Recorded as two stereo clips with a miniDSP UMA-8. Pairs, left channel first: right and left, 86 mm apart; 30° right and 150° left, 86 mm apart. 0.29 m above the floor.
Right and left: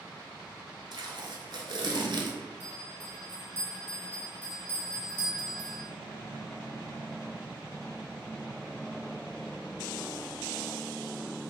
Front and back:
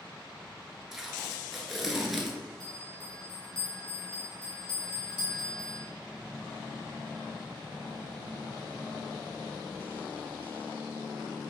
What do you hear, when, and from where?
0.9 s tape being pulled: 60° left, 0.6 m
2.6 s a bell: 20° right, 1.4 m